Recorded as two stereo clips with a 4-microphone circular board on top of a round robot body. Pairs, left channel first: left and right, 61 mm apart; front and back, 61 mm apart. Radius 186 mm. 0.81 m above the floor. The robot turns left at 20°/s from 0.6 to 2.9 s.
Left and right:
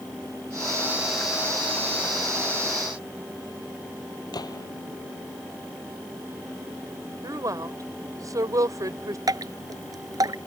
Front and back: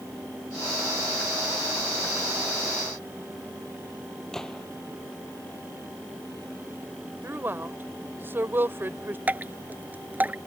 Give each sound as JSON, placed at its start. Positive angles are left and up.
{"t": 4.3, "sound": "a gunshot", "azimuth_deg": 80}
{"t": 7.2, "sound": "a woman speaking", "azimuth_deg": -125}
{"t": 9.3, "sound": "dripping", "azimuth_deg": -115}